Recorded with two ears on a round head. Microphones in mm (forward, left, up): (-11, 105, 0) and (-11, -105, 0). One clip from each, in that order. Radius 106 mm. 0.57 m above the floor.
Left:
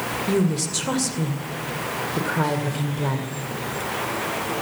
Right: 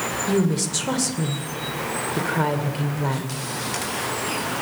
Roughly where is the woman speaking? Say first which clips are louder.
Even; centre.